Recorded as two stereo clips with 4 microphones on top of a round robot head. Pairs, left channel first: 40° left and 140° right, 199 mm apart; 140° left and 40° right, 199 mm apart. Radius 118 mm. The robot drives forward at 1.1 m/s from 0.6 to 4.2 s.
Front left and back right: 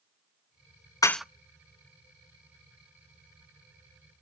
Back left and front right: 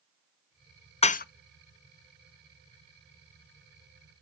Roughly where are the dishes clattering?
Left.